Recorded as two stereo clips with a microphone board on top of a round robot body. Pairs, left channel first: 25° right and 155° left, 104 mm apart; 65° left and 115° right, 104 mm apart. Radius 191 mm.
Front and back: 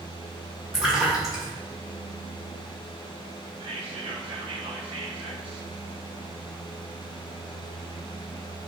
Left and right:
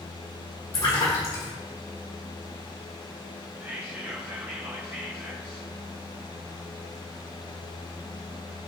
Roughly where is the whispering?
Behind.